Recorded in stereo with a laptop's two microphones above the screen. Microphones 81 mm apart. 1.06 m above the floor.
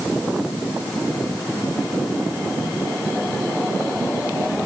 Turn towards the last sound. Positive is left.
No sound to turn to.